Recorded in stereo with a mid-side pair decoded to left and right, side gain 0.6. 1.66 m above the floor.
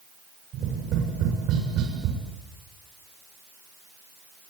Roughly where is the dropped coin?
No dropped coin in this recording.